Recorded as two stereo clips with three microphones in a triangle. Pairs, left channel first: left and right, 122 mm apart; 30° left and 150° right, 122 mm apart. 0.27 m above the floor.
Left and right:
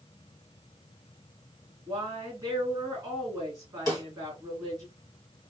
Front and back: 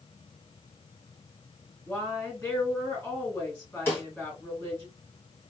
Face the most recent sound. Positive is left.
turn(degrees=-40)